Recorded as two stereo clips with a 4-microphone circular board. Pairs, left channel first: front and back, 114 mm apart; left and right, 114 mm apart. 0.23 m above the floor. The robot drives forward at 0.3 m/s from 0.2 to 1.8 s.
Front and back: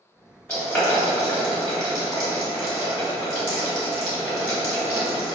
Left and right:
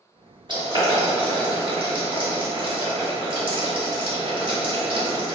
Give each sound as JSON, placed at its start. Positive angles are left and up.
{"t": 0.5, "sound": "boiling", "azimuth_deg": -75, "distance_m": 2.0}